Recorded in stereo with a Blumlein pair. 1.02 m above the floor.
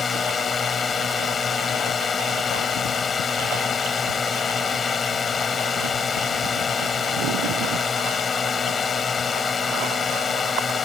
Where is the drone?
20° left.